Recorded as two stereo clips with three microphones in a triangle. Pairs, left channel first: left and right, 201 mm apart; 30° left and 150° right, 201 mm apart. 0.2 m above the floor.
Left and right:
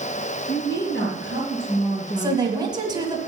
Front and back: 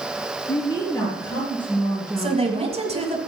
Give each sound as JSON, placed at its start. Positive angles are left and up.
{"t": 0.5, "sound": "a woman speaking", "azimuth_deg": 85, "distance_m": 3.0}
{"t": 2.2, "sound": "a woman speaking", "azimuth_deg": -140, "distance_m": 1.7}